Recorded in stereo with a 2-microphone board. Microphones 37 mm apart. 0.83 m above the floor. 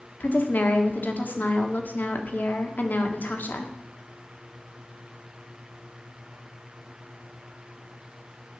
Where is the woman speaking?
55° left (ahead or behind), 1.5 m.